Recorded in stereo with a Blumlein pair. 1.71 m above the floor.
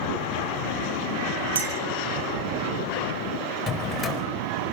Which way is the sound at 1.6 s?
70° right.